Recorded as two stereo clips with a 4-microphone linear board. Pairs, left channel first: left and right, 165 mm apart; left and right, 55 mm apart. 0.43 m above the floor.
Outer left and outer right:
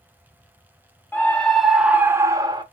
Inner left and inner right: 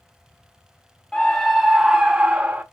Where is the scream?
10° left (ahead or behind), 0.9 m; by 2.6 s 25° right (ahead or behind), 1.0 m.